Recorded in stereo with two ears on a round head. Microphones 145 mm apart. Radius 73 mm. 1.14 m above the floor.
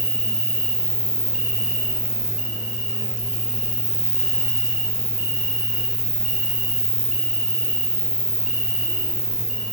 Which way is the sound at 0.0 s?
Centre (ahead or behind).